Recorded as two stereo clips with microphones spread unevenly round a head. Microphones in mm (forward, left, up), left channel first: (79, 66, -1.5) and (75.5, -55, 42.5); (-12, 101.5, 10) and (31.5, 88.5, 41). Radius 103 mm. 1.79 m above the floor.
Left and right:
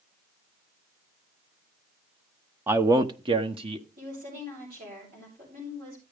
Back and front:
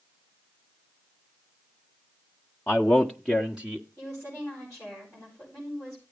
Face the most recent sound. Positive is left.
turn(degrees=-105)